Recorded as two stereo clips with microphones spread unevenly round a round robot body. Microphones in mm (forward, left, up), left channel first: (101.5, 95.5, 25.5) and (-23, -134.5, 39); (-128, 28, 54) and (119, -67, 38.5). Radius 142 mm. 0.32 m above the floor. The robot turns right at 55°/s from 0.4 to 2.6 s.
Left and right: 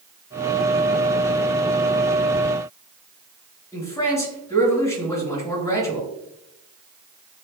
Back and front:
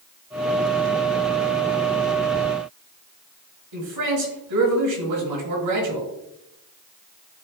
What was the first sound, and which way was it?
A man speaking, 15° right.